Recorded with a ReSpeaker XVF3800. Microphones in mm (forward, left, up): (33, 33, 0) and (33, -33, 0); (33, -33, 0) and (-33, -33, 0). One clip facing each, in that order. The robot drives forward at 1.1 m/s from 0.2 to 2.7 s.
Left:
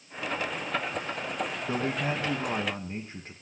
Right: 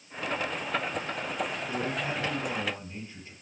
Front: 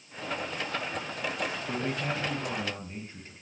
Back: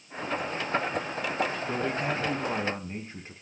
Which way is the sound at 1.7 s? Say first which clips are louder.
Left 2 dB, back 3 dB; 95° left.